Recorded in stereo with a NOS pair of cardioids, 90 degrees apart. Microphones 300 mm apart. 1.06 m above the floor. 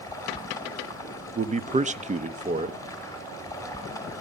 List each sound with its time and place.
0.0 s running water: 10° left, 4.5 m
1.4 s a man speaking: 25° right, 1.0 m